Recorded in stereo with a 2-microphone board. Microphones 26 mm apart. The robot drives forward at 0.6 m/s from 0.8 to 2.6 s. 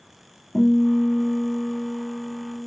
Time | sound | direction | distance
0.5 | a guitar | 50° left (ahead or behind) | 2.5 m